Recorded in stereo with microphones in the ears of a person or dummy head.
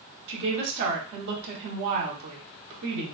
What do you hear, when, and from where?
0.3 s a woman speaking: 60° right (ahead or behind), 1.9 m